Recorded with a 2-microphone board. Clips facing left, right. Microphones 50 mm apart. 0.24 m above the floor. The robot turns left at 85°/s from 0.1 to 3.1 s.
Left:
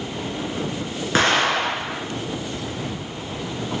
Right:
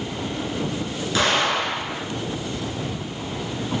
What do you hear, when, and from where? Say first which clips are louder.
1.1 s an explosion: left 2 dB; 130° left, 1.2 m; by 2.0 s 60° left, 1.2 m